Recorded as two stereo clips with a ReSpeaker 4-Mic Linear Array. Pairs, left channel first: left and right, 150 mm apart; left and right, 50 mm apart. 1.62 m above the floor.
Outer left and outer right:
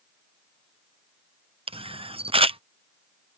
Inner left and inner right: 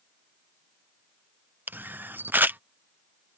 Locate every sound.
1.7 s a camera shutter: 40° right (ahead or behind)